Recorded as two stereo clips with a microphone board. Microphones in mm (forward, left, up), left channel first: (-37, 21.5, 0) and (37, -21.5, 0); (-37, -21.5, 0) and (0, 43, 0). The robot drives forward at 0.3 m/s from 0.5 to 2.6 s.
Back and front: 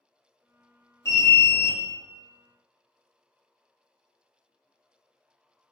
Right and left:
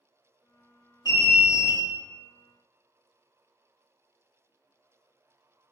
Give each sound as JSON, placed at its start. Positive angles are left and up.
{"t": 1.1, "sound": "an alarm", "azimuth_deg": -155, "distance_m": 1.1}